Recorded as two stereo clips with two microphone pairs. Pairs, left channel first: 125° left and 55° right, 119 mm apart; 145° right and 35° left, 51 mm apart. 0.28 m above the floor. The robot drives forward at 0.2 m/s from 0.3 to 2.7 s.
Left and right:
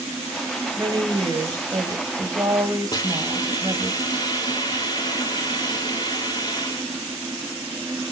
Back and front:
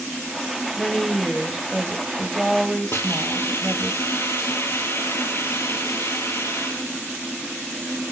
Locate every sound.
0.8 s a woman speaking: 55° right, 1.3 m; by 3.9 s 85° right, 1.2 m
2.9 s a hiss: straight behind, 1.6 m